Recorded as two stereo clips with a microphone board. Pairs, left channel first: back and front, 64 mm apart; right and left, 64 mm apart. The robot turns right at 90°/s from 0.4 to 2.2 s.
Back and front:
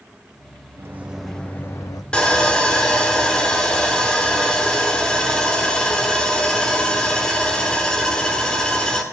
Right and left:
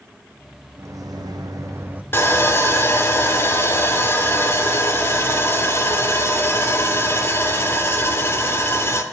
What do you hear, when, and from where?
0.8 s a microwave: 45° left, 0.9 m; by 2.0 s 160° left, 0.9 m
2.1 s sawing: 115° right, 1.1 m; by 9.0 s 110° right, 1.1 m